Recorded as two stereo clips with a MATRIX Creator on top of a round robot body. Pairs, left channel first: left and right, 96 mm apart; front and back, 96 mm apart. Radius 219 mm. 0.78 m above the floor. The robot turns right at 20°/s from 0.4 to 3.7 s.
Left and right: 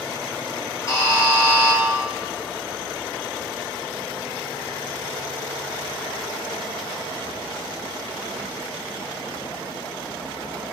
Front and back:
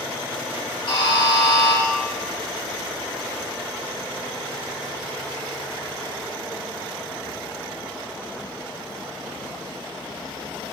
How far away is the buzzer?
About 4.5 m.